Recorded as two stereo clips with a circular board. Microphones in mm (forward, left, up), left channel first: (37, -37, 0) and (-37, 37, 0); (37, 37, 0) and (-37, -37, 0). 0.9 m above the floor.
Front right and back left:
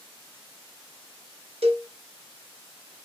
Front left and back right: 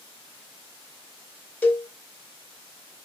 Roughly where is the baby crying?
I don't hear a baby crying.